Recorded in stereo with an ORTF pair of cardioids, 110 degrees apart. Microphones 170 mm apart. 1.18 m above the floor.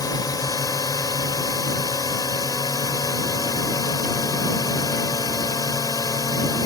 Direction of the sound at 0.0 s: 20° left.